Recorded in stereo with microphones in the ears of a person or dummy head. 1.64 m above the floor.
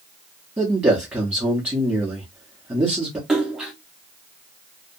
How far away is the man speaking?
About 0.8 m.